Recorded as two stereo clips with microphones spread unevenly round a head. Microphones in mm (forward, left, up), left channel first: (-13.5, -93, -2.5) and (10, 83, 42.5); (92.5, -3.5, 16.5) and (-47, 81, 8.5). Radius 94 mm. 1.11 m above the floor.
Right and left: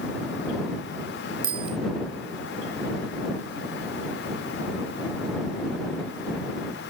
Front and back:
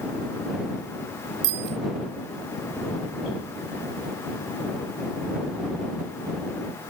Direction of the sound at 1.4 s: 140° left.